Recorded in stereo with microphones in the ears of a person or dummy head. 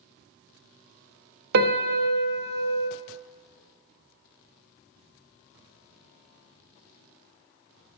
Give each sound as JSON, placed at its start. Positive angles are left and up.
{"t": 1.5, "sound": "a piano", "side_deg": -55, "distance_m": 0.7}